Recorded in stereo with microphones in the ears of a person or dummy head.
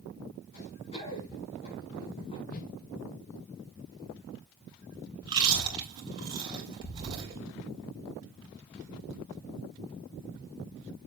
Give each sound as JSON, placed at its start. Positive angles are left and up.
{"t": 0.5, "sound": "running footsteps", "side_deg": 35, "distance_m": 5.5}
{"t": 2.5, "sound": "a whoosh", "side_deg": 40, "distance_m": 0.9}
{"t": 5.2, "sound": "chewing", "side_deg": -30, "distance_m": 3.5}